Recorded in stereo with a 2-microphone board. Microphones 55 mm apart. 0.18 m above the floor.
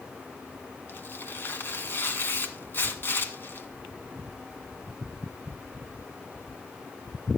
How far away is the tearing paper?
About 1.5 m.